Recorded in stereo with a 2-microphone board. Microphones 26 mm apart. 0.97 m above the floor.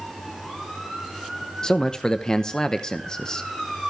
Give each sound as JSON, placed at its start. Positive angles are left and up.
{"t": 1.6, "sound": "a man speaking", "side_deg": 25, "distance_m": 0.7}